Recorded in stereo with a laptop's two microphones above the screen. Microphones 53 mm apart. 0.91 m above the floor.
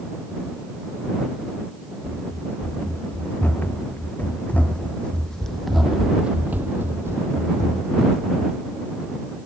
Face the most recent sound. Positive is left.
turn(degrees=-70)  # may be behind; listen again after turning